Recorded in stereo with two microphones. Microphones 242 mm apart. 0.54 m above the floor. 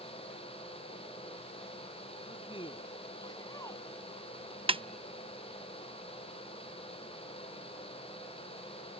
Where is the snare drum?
20° right (ahead or behind).